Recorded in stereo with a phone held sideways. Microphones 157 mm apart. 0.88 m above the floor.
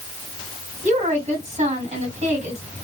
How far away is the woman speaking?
About 1.6 m.